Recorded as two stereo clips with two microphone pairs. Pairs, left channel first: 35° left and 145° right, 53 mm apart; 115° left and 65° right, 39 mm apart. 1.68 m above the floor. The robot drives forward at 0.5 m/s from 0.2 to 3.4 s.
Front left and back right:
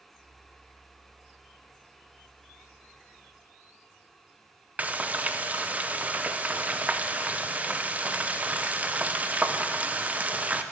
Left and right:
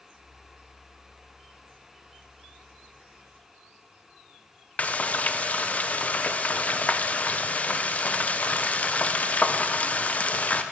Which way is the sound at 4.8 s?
160° left.